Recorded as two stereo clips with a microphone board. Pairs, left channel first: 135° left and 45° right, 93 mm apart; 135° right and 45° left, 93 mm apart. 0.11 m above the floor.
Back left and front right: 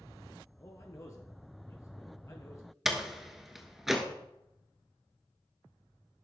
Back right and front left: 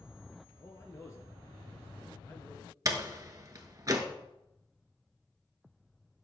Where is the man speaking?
Straight behind, 1.6 m.